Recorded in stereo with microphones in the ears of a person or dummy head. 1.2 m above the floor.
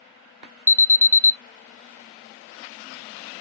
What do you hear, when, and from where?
0.7 s an alarm: 15° right (ahead or behind), 0.9 m